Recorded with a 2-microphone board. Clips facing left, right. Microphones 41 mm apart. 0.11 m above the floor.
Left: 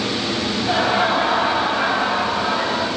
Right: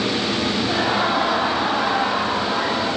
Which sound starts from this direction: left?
Laughter, at 0.6 s.